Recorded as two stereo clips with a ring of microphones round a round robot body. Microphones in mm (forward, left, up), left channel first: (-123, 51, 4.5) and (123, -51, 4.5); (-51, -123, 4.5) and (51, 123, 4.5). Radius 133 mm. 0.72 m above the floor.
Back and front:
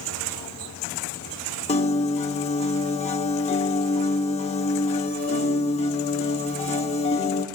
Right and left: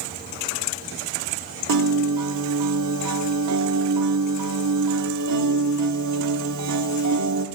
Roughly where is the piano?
Left.